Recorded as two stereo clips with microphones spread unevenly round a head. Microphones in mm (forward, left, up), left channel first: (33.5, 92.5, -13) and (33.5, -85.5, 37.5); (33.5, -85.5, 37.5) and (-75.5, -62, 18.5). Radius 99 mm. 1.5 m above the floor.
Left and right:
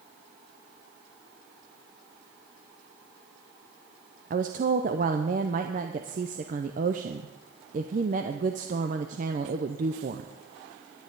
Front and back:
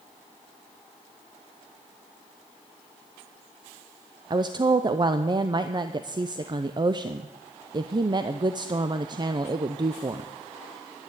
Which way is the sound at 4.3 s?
140° right.